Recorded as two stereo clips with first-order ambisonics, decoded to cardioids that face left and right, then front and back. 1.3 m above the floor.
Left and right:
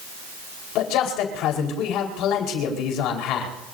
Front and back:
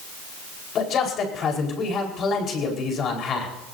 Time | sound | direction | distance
0.8 | a man speaking | 55° left | 4.5 m